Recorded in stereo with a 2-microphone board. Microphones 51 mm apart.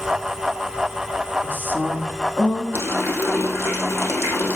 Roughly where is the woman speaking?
Left.